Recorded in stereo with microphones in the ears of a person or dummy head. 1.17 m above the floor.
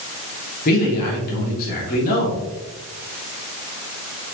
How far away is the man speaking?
About 1.4 m.